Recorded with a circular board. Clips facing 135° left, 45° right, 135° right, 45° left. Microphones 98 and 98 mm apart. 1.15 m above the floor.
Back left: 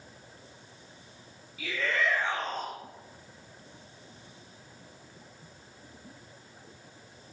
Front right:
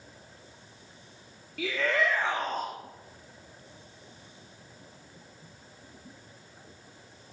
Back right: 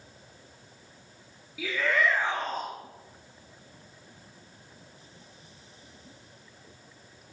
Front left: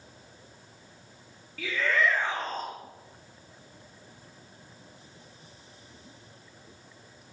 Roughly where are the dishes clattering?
No dishes clattering in this recording.